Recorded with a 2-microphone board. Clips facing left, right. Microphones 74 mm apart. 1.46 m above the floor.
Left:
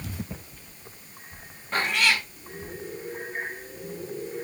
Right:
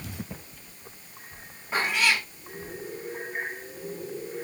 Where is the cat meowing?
5° right (ahead or behind), 1.6 m.